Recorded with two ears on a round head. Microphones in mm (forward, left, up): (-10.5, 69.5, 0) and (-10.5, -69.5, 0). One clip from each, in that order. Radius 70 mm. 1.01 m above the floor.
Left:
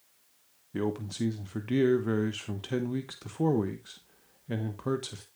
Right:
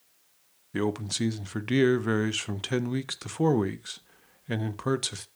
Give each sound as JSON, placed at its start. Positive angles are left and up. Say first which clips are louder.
{"t": 0.7, "sound": "a man speaking", "louder": "right 4 dB", "side_deg": -45, "distance_m": 0.9}